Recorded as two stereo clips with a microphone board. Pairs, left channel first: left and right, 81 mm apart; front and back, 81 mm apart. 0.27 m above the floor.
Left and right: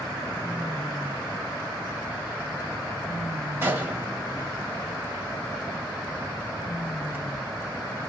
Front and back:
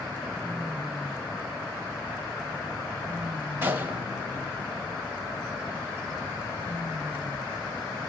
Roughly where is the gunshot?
Behind right.